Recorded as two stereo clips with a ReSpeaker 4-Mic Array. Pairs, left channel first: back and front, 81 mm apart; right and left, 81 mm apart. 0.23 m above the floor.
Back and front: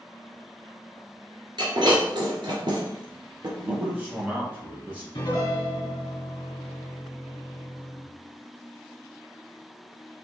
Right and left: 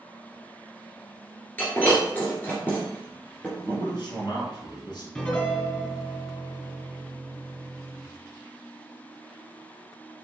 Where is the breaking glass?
20° right, 1.7 m.